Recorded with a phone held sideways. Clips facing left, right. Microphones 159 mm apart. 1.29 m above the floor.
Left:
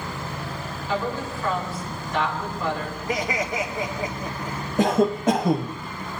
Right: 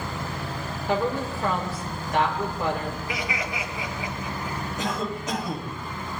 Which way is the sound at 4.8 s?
55° left (ahead or behind).